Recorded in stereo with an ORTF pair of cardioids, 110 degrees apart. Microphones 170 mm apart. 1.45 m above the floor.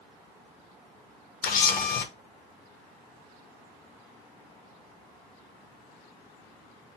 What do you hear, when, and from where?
1.4 s a camera shutter: 55° left, 0.9 m